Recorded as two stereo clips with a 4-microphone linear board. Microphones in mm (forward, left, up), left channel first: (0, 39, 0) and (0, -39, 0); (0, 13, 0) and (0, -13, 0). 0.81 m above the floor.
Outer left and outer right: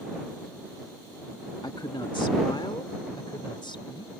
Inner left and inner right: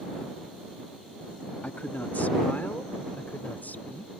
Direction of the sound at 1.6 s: 65° left (ahead or behind).